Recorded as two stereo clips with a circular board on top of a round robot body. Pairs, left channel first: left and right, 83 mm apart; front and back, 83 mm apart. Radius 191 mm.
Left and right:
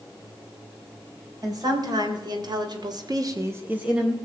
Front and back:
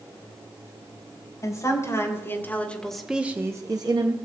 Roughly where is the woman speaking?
Ahead right.